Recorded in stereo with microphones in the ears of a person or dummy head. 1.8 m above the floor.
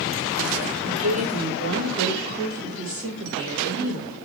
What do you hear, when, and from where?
0.8 s a woman speaking: 75° right (ahead or behind), 2 m; by 4.2 s 15° right (ahead or behind), 1.9 m